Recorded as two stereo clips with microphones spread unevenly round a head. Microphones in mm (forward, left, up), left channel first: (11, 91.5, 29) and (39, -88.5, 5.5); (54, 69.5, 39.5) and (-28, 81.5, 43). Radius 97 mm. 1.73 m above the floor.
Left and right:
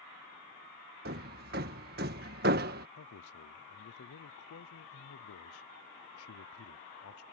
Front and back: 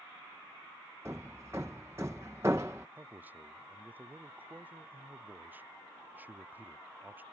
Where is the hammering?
120° right.